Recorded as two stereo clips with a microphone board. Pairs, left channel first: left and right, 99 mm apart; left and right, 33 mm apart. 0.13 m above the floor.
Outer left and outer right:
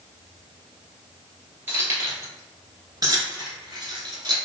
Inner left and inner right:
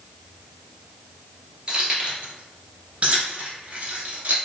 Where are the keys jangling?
25° right (ahead or behind), 1.7 m; by 4.4 s 45° right (ahead or behind), 1.3 m.